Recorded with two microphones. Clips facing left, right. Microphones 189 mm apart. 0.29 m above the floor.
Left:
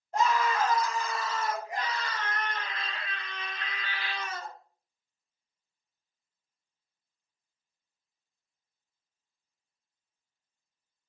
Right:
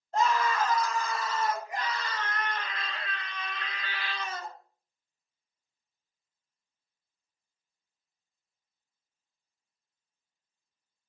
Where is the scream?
15° left (ahead or behind), 1.4 m; by 4.5 s 65° left (ahead or behind), 3.5 m.